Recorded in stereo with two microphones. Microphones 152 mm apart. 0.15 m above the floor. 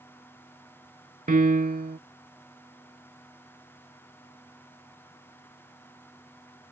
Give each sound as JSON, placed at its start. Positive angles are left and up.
{"t": 1.3, "sound": "a piano", "side_deg": -65}